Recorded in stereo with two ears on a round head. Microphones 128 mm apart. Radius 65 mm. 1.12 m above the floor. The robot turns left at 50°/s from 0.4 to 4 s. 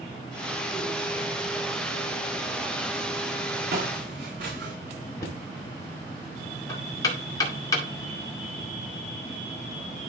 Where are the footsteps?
75° right (ahead or behind), 4.5 m; by 4.7 s 70° right (ahead or behind), 4.5 m.